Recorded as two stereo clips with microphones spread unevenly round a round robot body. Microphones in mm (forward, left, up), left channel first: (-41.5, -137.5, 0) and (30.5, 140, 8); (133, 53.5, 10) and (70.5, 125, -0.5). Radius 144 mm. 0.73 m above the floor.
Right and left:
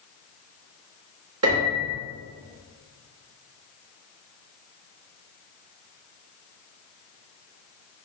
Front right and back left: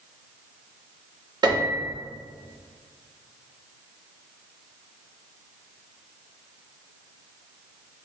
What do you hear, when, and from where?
1.4 s a piano: 105° left, 1.5 m